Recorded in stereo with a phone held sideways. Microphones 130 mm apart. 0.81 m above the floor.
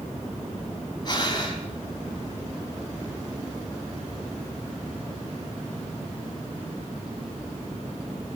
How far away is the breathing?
About 4.5 m.